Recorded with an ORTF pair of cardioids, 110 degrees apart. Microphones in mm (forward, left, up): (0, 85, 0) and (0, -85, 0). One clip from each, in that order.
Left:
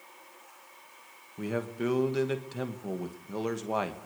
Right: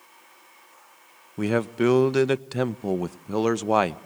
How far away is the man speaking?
About 1.1 m.